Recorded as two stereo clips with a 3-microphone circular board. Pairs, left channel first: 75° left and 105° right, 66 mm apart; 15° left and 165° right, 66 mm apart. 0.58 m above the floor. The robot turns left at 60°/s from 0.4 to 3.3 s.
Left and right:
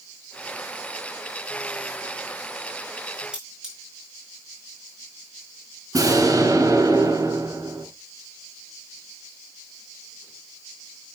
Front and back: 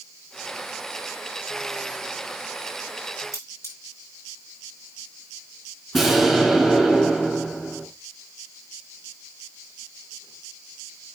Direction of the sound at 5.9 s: 70° right.